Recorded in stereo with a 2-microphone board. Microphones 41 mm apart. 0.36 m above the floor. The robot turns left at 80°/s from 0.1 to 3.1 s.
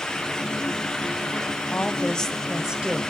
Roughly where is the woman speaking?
Ahead left.